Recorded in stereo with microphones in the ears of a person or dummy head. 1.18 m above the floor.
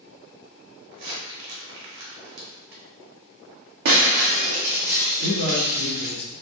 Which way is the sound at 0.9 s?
65° right (ahead or behind).